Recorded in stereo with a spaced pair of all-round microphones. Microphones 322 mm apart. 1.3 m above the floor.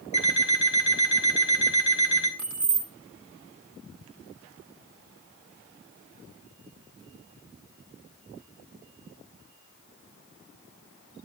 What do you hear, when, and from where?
0.1 s an alarm clock: 70° left (ahead or behind), 2.5 m
2.4 s keys jangling: 70° right (ahead or behind), 1.5 m